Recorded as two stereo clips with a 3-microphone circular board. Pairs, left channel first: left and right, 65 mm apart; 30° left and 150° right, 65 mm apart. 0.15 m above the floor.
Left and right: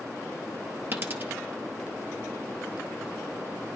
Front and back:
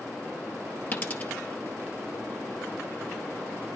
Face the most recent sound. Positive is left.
turn(degrees=-35)